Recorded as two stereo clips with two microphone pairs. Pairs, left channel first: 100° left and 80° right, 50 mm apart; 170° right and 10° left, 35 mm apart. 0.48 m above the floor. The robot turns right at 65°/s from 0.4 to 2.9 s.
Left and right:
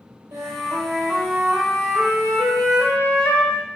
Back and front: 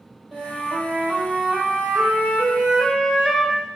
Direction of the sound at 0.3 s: 75° right.